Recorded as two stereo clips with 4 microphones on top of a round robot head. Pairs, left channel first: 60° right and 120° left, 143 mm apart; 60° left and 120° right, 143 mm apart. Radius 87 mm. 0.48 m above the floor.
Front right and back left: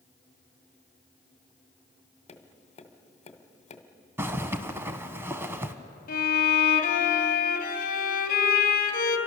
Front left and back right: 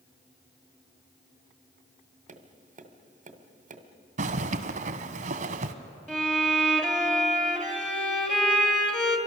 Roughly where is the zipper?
Behind.